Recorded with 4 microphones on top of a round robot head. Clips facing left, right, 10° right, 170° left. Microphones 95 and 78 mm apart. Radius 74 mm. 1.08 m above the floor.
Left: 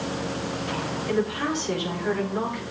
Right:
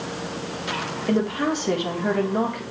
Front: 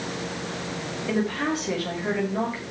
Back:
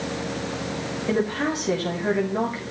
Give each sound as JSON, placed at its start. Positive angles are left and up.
{"t": 1.1, "sound": "a woman speaking", "azimuth_deg": -120, "distance_m": 3.5}